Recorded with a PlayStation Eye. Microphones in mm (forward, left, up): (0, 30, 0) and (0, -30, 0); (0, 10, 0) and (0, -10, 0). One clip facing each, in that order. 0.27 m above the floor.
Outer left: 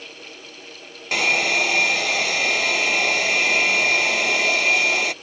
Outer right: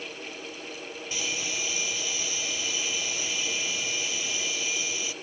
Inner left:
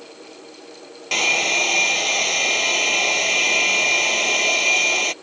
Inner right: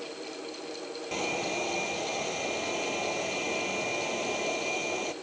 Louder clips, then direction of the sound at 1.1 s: Outer left 15 dB, inner left 13 dB; 70° left (ahead or behind).